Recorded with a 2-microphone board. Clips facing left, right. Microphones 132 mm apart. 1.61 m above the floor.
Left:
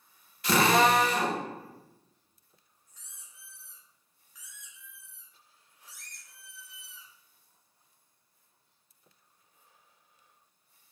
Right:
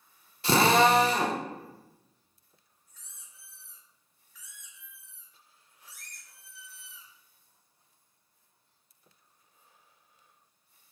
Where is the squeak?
20° left (ahead or behind), 1.4 m.